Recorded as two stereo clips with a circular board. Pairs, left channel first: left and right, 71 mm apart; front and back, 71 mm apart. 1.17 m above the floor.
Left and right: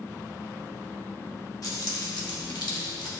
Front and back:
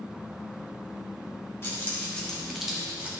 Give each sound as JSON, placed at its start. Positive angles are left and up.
{"t": 1.6, "sound": "keys jangling", "azimuth_deg": 55, "distance_m": 1.7}